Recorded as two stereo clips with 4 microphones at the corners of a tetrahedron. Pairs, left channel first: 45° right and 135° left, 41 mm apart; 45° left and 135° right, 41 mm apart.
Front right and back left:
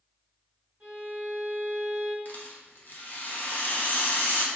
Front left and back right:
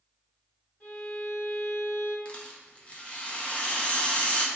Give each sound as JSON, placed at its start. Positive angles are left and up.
{"t": 0.8, "sound": "a violin", "azimuth_deg": 85, "distance_m": 1.6}
{"t": 2.2, "sound": "a rattle", "azimuth_deg": -10, "distance_m": 0.6}